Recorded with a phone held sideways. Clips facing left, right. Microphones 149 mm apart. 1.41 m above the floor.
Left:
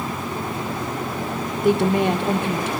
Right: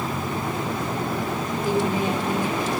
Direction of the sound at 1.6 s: 65° left (ahead or behind).